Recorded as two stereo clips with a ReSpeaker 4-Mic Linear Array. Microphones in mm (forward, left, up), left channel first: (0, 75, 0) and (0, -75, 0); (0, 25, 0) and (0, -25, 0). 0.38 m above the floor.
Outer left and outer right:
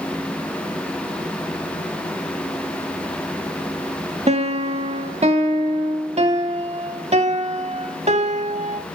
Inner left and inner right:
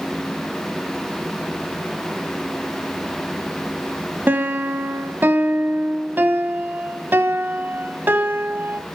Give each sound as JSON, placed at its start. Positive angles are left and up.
{"t": 4.3, "sound": "a piano", "side_deg": -45, "distance_m": 0.7}